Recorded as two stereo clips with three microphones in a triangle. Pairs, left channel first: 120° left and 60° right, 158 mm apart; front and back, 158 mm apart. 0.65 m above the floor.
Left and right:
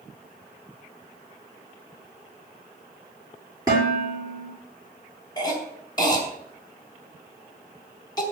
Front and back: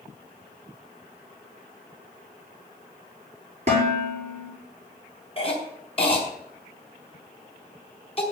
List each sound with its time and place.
3.7 s dishes clattering: 130° right, 7.5 m
5.4 s a cough: 55° left, 4.5 m